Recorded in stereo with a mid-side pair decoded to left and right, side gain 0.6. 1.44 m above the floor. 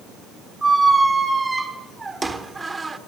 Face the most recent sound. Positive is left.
turn(degrees=-15)